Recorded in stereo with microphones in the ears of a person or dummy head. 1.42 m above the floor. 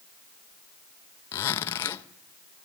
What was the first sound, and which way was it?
A zipper, 25° left (ahead or behind).